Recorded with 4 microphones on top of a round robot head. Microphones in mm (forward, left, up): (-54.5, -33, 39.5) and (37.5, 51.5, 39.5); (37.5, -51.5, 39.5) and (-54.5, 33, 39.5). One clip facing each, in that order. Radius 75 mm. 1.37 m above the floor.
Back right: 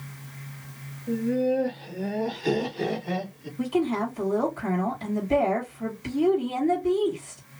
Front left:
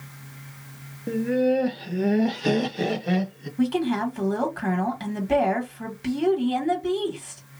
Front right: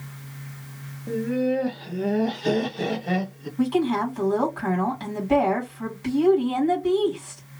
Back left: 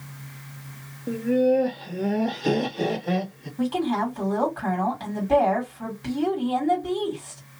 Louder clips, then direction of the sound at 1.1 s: Front left 2 dB, back left 3 dB; 55° left.